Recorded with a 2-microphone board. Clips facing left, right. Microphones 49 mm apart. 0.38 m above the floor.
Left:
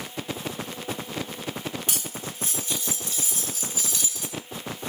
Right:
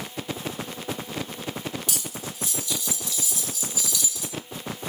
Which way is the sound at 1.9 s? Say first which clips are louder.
Even; 40° left (ahead or behind).